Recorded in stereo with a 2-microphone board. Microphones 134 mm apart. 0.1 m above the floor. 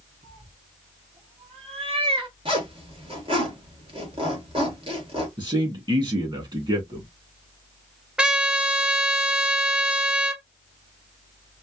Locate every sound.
0.2 s a cat meowing: 50° right (ahead or behind), 2.5 m; by 2.4 s 40° right (ahead or behind), 0.9 m
2.5 s a zipper: 40° right (ahead or behind), 1.9 m
5.4 s a man speaking: 35° right (ahead or behind), 2.5 m
8.2 s a trumpet: 5° right (ahead or behind), 0.5 m